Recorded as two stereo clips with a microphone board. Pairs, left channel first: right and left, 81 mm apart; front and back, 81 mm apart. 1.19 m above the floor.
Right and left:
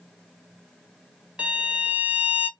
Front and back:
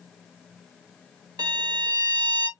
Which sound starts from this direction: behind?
A violin, at 1.4 s.